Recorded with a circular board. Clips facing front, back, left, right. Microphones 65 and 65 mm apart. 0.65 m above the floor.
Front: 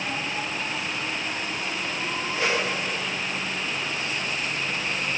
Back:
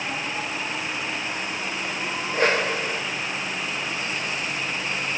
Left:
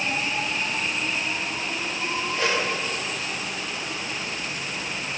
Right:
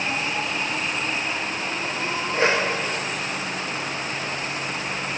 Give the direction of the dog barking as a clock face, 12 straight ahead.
No dog barking in this recording.